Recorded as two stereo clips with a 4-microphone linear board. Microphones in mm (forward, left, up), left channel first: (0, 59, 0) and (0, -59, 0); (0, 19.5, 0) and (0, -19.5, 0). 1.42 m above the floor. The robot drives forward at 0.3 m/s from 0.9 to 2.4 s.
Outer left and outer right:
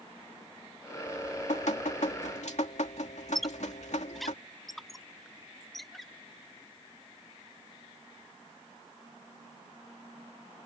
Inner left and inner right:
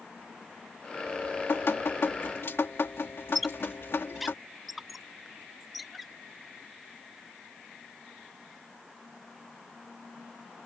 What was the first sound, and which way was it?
Dripping, 85° left.